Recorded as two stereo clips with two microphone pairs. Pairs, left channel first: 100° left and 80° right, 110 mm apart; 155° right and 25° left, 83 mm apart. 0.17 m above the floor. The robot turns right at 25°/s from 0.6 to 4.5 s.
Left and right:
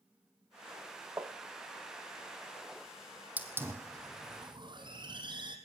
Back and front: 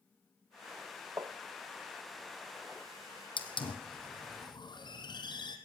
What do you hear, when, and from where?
1.2 s tapping: 20° right, 1.0 m; by 1.3 s 15° right, 1.0 m
3.4 s a hiss: 155° right, 1.7 m; by 5.6 s 125° right, 1.7 m